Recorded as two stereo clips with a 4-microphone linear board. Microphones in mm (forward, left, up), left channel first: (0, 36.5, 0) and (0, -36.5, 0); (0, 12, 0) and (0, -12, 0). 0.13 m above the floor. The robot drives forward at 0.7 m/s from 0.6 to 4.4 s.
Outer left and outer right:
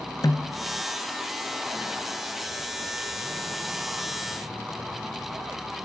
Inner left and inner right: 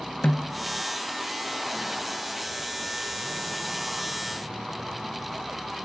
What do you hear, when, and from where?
0.2 s a snare drum: 55° left (ahead or behind), 0.9 m